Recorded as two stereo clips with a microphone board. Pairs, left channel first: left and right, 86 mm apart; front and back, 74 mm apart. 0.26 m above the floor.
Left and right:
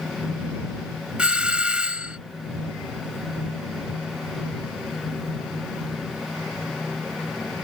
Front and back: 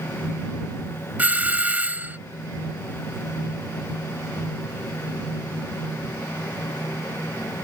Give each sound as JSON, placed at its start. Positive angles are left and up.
{"t": 1.2, "sound": "a doorbell", "azimuth_deg": -150}